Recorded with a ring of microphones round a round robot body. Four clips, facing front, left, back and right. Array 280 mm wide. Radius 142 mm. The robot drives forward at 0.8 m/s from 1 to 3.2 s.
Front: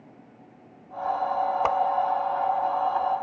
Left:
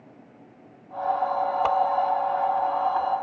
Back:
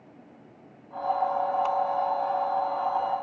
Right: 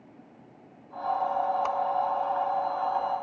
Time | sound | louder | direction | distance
1.6 | a whoosh | left 6 dB, front 3 dB | 30° left | ?